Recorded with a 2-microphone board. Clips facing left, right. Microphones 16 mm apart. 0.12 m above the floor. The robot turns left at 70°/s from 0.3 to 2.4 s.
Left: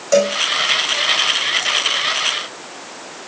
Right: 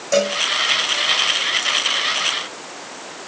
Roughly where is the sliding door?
No sliding door in this recording.